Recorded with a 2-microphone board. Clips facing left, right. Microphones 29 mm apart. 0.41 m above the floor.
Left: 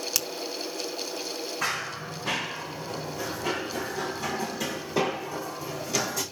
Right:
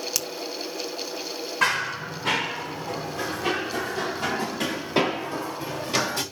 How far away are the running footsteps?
About 8.5 m.